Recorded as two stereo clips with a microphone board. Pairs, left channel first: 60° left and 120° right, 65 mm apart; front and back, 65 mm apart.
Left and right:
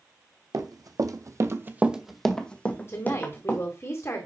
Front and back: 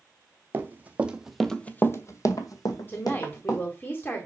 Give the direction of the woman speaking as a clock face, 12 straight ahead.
11 o'clock.